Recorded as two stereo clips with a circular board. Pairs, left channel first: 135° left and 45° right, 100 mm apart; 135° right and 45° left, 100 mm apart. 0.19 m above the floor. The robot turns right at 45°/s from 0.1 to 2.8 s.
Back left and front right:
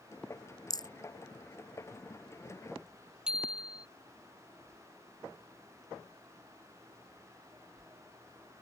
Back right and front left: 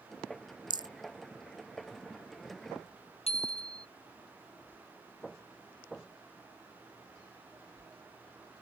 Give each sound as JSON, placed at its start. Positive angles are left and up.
{"t": 0.7, "sound": "a rattle", "azimuth_deg": 85}
{"t": 3.3, "sound": "a bicycle bell", "azimuth_deg": -125}